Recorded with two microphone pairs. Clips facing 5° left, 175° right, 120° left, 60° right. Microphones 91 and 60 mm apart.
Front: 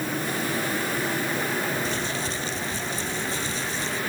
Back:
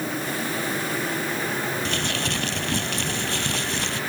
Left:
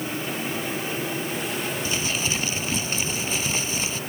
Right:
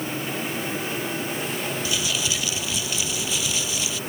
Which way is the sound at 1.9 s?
170° left.